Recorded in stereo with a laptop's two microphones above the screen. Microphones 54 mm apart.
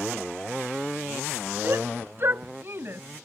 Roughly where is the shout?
Right.